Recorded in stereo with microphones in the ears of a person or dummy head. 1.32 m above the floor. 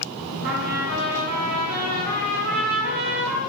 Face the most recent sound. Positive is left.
turn(degrees=-45)  # may be behind; listen again after turning